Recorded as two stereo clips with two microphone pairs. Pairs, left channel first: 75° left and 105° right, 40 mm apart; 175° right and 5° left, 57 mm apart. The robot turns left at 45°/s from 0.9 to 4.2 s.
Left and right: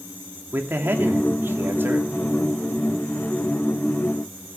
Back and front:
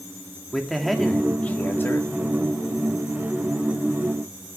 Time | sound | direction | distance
0.5 | a man speaking | 85° right | 2.5 m